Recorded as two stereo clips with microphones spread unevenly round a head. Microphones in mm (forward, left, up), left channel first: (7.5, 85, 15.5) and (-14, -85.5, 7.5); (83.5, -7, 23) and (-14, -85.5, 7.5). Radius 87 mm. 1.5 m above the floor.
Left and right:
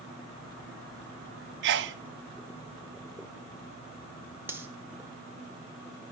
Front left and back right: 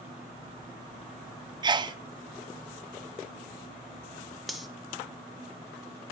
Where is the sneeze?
90° right, 0.6 m.